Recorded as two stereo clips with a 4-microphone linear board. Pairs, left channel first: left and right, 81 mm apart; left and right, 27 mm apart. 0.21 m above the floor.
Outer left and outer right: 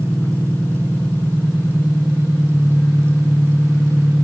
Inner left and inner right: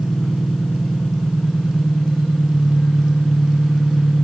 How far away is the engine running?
About 1.7 m.